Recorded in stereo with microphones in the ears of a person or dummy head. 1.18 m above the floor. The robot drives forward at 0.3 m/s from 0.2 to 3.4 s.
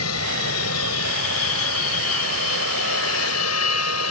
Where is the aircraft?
70° left (ahead or behind); by 4.1 s 75° left (ahead or behind).